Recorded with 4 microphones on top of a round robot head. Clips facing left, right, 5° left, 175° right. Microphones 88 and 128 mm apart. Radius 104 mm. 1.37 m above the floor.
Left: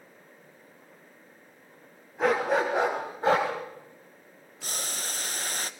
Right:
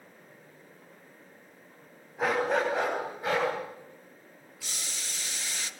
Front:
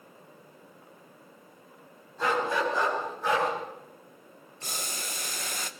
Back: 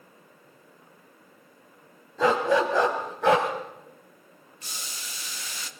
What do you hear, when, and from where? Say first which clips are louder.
2.2 s a dog barking: left 2 dB, back 6 dB; straight behind, 4 m; by 3.5 s 155° left, 3.5 m
4.6 s boiling: left 6 dB, front 6 dB; 45° left, 0.9 m